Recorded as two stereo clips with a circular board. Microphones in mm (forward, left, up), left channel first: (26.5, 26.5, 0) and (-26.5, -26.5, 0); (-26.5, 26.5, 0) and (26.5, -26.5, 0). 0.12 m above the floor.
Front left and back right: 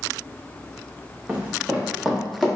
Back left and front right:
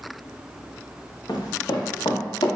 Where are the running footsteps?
155° left, 1.3 m; by 2.5 s 135° left, 1.8 m.